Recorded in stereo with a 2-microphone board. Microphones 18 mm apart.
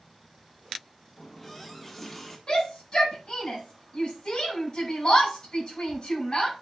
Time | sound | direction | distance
1.2 | a running tap | 15° left (ahead or behind) | 1.6 m
2.5 | a shout | 45° left (ahead or behind) | 5.5 m